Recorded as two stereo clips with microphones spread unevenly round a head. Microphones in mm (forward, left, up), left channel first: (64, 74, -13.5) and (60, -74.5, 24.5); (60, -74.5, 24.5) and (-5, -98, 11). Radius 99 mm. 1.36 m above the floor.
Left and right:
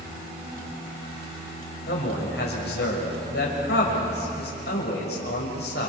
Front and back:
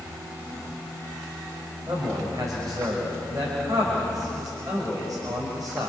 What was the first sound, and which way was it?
A man speaking, 130° left.